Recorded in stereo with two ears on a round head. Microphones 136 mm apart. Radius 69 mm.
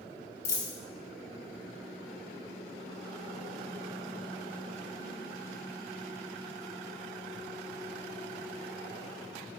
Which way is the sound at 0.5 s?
50° left (ahead or behind).